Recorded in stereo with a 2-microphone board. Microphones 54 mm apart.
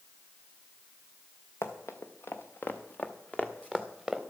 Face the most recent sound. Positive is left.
turn(degrees=-5)  # may be behind; listen again after turning